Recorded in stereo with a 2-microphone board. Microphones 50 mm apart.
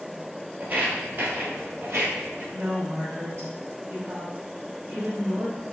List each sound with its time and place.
0.6 s footsteps: 35° right (ahead or behind), 1.7 m; by 2.4 s 60° right (ahead or behind), 2 m
2.5 s a woman speaking: 55° right (ahead or behind), 2 m